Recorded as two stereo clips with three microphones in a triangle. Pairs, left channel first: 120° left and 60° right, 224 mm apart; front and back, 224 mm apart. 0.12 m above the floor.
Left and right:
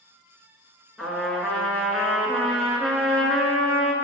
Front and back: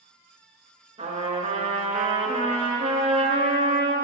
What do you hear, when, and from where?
1.0 s a trumpet: 150° right, 1.2 m